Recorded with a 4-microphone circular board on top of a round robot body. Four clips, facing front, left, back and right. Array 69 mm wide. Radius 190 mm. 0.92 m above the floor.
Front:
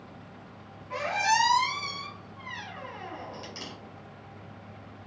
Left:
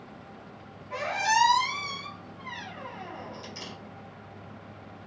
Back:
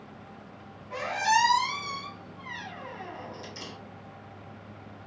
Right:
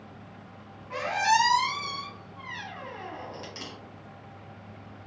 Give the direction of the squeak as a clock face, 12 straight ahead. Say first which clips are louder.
Right 2 dB, back 1 dB; 2 o'clock.